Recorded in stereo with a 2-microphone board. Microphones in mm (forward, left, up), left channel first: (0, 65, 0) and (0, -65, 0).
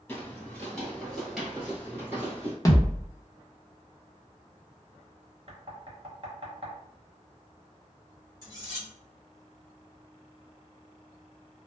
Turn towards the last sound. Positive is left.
turn(degrees=-30)  # may be behind; listen again after turning